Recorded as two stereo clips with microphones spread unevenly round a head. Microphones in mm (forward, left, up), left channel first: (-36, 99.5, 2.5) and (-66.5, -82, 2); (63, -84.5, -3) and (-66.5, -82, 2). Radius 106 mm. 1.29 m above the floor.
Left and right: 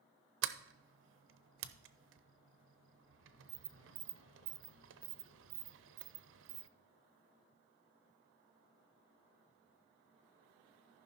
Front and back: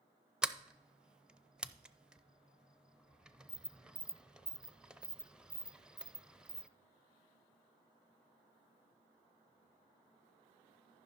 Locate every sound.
0.4 s a sliding door: 95° right, 0.7 m